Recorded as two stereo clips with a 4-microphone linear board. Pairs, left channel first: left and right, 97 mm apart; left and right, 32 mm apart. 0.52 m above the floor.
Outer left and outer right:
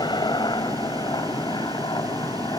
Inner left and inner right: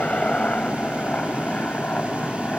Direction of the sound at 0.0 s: 50° left (ahead or behind).